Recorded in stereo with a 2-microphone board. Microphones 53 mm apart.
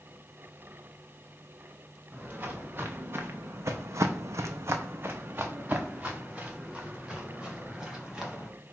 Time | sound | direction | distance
2.1 | footsteps | 30° right (ahead or behind) | 1.3 m